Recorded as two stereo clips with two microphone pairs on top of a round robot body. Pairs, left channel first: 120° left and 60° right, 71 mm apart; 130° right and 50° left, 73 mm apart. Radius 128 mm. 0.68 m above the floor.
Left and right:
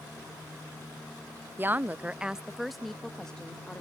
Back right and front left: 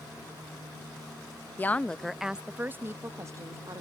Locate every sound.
1.6 s a woman speaking: 65° right; by 3.8 s 40° left